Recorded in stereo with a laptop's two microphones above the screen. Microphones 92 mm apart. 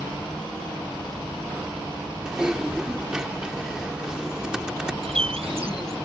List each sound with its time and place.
2.2 s typing on a keyboard: 10° right (ahead or behind)
5.0 s a bird: 85° right